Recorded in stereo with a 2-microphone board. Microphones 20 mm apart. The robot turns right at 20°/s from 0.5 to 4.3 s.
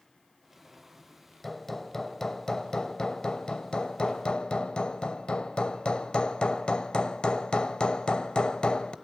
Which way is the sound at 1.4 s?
10° left.